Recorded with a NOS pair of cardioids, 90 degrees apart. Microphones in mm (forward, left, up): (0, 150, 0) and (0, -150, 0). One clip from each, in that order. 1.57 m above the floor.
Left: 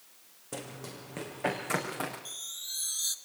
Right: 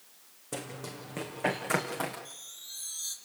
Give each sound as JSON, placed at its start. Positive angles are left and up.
{"t": 0.5, "sound": "running footsteps", "azimuth_deg": -10, "distance_m": 5.5}
{"t": 2.2, "sound": "a chime", "azimuth_deg": 45, "distance_m": 1.8}